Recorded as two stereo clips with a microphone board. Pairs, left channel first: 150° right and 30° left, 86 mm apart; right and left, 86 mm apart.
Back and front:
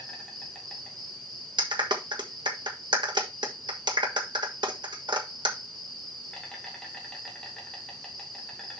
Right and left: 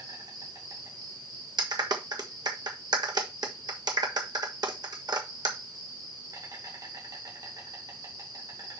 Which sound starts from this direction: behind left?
An insect, at 0.0 s.